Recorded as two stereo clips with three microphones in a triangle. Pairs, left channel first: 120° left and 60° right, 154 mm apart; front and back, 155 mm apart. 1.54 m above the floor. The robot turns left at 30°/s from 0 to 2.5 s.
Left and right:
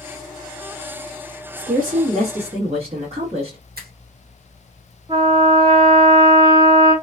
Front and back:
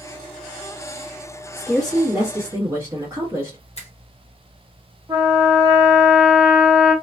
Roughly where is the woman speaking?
Right.